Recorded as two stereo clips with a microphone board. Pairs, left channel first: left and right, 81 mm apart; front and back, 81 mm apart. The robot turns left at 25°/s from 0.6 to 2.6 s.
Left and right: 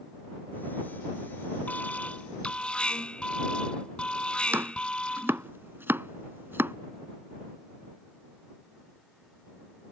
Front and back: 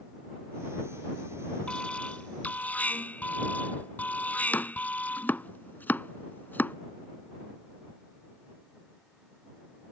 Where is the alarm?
55° left; by 5.5 s 35° left.